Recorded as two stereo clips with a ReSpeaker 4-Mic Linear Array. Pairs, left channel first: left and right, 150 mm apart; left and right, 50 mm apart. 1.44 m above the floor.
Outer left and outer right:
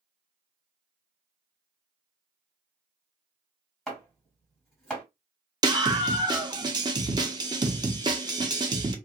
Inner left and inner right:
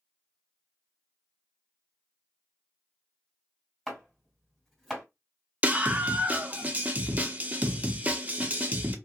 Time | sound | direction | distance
3.9 | chopping | centre (ahead or behind) | 2 m
5.6 | a scream | 25° right (ahead or behind) | 0.5 m